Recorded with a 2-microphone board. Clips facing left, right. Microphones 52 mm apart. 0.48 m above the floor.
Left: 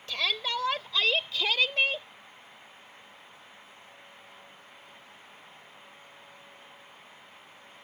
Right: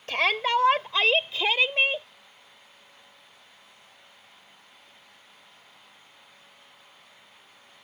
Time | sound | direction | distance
0.1 | a shout | 45° right (ahead or behind) | ?